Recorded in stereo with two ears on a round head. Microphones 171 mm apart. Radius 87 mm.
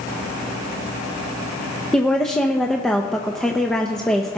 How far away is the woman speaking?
About 0.6 m.